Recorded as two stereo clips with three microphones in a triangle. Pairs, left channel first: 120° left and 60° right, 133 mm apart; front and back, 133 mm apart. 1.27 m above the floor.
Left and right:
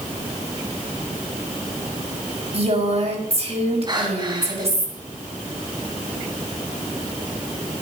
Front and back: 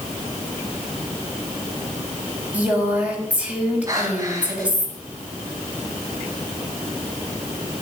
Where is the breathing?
115° right, 4 m.